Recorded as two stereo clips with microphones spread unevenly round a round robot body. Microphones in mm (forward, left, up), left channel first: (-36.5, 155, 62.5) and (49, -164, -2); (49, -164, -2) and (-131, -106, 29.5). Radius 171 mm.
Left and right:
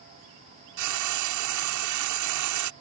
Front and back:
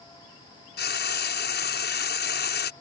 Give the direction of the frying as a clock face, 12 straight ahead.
1 o'clock.